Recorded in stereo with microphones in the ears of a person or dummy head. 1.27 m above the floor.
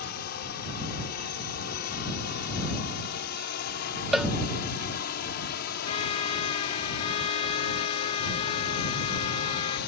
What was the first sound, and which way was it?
A drone, 55° left (ahead or behind).